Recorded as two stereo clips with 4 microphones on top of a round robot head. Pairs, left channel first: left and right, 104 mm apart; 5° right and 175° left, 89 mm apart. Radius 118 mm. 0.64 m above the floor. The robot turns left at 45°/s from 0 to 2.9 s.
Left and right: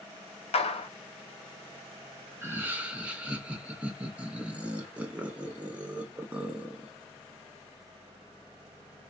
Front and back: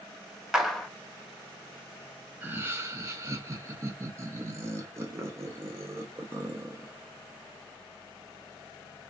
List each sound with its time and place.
0.5 s a clap: 90° left, 0.8 m; by 0.9 s 75° left, 0.8 m
2.4 s laughter: 135° right, 0.6 m; by 6.9 s 160° right, 0.6 m